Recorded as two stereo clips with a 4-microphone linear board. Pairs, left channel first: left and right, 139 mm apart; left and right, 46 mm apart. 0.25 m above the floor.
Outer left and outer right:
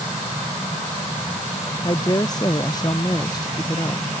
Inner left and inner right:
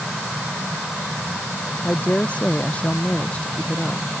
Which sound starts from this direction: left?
A woman speaking, at 1.8 s.